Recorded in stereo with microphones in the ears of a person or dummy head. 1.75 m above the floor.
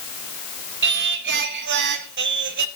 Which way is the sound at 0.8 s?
55° right (ahead or behind).